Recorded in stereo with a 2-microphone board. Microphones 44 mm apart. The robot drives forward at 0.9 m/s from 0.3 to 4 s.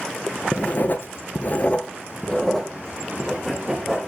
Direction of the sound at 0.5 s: 30° left (ahead or behind).